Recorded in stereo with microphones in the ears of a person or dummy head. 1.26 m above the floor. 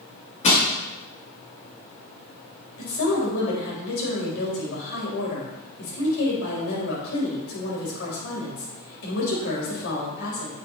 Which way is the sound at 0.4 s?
35° left (ahead or behind).